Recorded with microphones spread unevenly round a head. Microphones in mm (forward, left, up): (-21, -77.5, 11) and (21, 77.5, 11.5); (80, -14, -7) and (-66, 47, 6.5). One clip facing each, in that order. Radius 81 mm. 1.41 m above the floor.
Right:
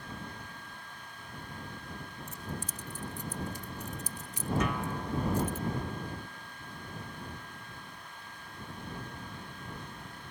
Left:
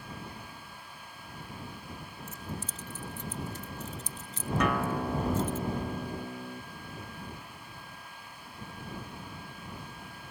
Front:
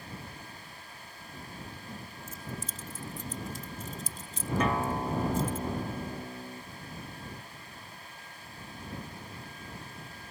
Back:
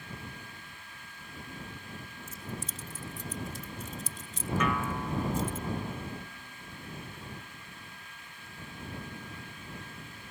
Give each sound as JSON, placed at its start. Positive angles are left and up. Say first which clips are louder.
{"t": 2.3, "sound": "keys jangling", "louder": "left 1 dB, back 1 dB", "azimuth_deg": -30}
{"t": 4.6, "sound": "a guitar", "louder": "left 4 dB, front 3 dB", "azimuth_deg": 35}